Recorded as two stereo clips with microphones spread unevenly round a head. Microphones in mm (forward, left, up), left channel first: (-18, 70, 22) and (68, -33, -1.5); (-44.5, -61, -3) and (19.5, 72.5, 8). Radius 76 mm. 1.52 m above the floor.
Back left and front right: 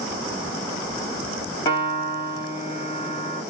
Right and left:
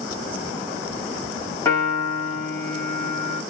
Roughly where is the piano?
Behind.